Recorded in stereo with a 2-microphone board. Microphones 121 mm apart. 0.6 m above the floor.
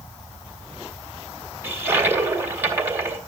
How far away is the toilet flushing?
About 2.5 m.